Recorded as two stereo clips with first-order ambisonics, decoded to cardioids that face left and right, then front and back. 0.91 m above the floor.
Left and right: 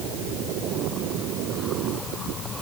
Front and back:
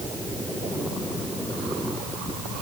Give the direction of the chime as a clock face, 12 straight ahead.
I don't hear a chime.